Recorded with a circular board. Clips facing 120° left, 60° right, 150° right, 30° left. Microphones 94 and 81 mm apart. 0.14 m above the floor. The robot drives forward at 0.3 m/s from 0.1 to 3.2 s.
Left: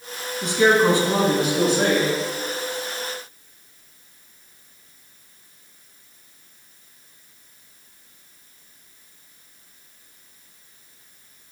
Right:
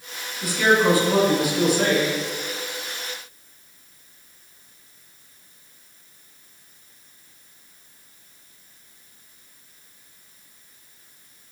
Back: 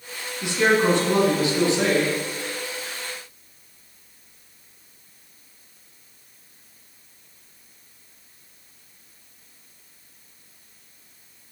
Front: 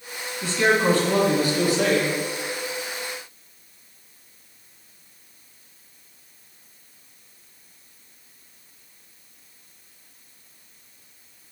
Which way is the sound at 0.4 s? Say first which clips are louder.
Left 2 dB, back 1 dB; 155° left.